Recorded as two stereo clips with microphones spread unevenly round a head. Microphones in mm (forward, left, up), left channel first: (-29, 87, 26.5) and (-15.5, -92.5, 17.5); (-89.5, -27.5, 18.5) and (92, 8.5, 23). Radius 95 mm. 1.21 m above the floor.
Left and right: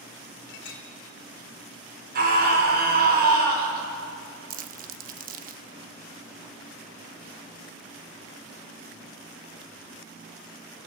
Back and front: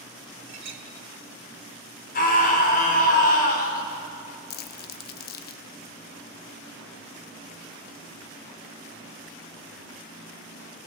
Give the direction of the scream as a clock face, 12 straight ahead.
4 o'clock.